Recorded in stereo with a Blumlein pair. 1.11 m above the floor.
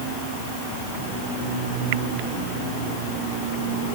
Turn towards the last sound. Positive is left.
No sound to turn to.